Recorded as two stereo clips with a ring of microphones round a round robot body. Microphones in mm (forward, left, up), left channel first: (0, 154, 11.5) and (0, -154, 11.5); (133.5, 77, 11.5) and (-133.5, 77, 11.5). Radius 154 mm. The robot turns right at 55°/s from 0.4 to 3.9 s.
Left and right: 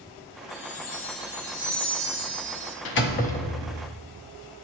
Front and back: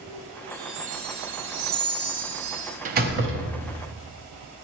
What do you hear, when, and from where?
0.5 s a chime: 95° left, 1.3 m; by 2.8 s 140° right, 1.3 m
2.9 s a door slam: 125° left, 0.7 m; by 3.9 s 175° right, 0.7 m